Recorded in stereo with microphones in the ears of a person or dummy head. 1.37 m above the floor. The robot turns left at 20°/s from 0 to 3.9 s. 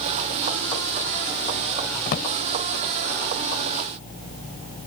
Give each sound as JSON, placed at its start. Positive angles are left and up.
{"t": 2.1, "sound": "a drawer", "side_deg": 50}